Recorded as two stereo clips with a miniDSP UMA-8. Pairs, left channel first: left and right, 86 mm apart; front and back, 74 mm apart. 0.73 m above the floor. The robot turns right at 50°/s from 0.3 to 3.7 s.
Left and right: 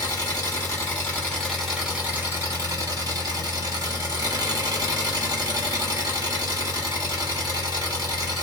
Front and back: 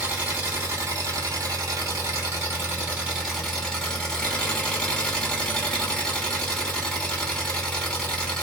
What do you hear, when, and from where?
0.0 s an engine running: 115° left, 1.3 m; by 8.4 s 75° right, 1.3 m